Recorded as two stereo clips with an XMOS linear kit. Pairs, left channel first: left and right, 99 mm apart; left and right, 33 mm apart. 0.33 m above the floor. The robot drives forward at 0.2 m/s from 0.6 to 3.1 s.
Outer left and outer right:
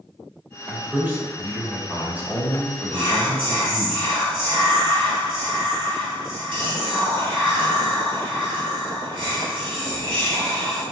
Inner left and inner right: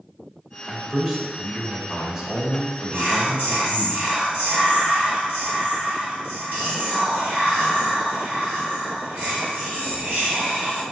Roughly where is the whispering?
Right.